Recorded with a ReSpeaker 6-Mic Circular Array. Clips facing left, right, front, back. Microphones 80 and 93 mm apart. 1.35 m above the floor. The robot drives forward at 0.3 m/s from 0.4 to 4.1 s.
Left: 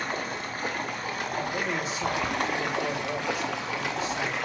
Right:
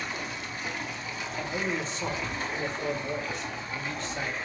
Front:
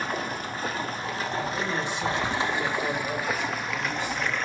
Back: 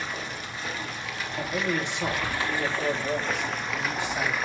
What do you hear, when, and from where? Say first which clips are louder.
0.0 s running water: left 4 dB, front 5 dB; 45° left, 1.4 m; by 4.5 s 95° left, 1.0 m
1.4 s a man speaking: even, back 3 dB; 165° left, 2 m; by 4.4 s 170° left, 3 m